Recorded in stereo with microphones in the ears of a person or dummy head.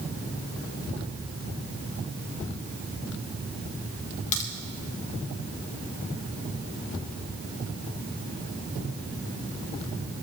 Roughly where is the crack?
Left.